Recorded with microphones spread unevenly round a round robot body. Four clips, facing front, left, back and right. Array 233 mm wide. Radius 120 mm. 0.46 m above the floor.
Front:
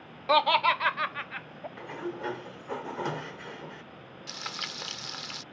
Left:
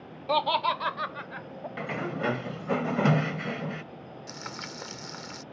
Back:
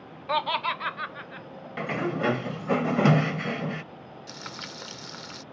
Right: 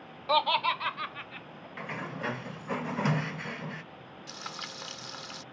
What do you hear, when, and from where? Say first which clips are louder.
0.3 s laughter: left 1 dB, front 4 dB; 50° left; by 1.7 s 70° left
1.8 s a sliding door: left 5 dB, back 9 dB; 165° left
4.3 s frying: left 1 dB, front 2 dB; 70° left